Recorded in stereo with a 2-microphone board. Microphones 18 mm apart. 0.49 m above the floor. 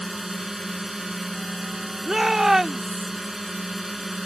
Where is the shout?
25° right (ahead or behind).